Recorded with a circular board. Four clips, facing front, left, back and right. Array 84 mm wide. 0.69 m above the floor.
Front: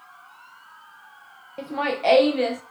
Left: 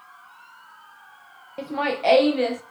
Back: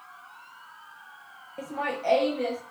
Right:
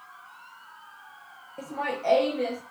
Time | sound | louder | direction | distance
1.6 | laughter | left 6 dB, front 5 dB | 65° left | 0.6 m